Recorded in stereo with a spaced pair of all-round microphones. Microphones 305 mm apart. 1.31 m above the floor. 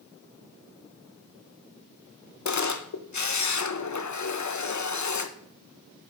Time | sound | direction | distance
2.5 | a camera shutter | 65° left (ahead or behind) | 0.5 m